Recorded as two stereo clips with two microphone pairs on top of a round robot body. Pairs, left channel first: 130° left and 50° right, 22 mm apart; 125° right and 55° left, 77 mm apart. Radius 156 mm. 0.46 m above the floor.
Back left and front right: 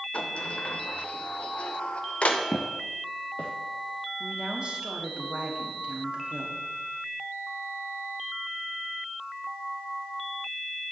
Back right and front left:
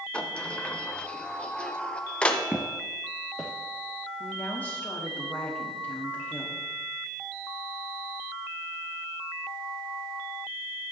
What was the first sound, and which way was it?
A sliding door, 155° left.